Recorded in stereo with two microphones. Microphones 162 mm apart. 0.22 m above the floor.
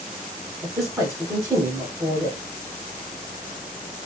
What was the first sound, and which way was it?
A man speaking, 10° right (ahead or behind).